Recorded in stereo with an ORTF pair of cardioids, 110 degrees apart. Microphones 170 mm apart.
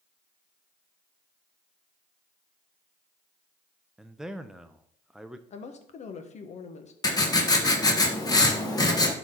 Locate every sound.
4.0 s a man speaking: 5° right, 0.5 m
5.5 s a woman speaking: 45° left, 1.2 m
7.0 s writing: 25° left, 1.5 m